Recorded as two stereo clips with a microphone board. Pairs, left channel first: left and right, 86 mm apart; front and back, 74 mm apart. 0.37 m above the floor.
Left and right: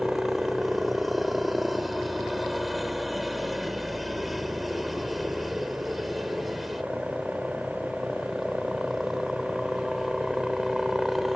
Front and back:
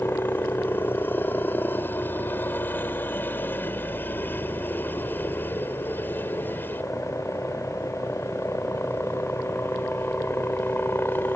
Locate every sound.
0.0 s a helicopter: straight ahead